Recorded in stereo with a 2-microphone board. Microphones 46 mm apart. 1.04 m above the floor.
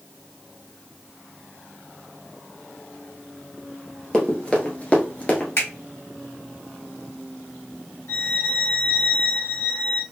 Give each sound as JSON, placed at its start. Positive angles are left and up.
{"t": 4.1, "sound": "running footsteps", "side_deg": 15, "distance_m": 1.3}
{"t": 5.6, "sound": "a finger snap", "side_deg": 65, "distance_m": 1.8}
{"t": 8.1, "sound": "a violin", "side_deg": 80, "distance_m": 2.0}